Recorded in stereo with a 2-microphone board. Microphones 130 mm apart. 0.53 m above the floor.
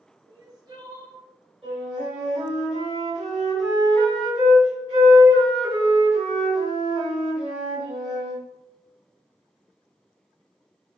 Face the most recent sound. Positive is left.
turn(degrees=-45)  # may be behind; listen again after turning